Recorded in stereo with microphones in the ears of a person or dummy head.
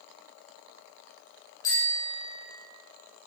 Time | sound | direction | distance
1.6 | a bicycle bell | 15° left (ahead or behind) | 8 m